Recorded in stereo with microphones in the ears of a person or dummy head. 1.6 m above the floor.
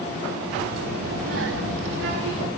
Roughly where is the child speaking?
Right.